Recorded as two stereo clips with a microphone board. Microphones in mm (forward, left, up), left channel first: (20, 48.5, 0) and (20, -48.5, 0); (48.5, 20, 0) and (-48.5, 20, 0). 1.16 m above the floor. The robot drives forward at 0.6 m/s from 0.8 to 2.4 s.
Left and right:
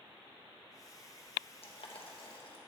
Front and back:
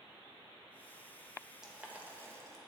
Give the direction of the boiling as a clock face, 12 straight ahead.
9 o'clock.